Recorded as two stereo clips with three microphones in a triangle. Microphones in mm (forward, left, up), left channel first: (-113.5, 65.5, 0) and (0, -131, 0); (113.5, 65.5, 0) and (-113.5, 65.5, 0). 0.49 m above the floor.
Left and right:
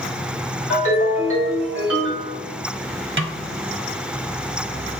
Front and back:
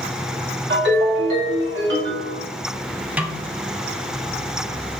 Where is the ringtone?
145° left, 2 m.